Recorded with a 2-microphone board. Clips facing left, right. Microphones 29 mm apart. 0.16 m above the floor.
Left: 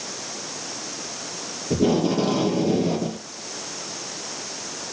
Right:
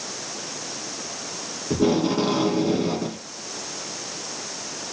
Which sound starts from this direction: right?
Tape being pulled, at 1.7 s.